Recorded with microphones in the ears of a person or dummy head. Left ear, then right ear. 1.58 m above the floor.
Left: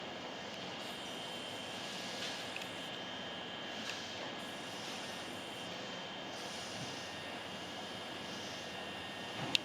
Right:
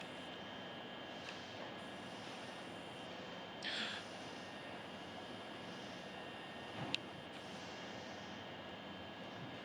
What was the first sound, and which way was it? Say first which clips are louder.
A gasp: right 4 dB; 55° right (ahead or behind).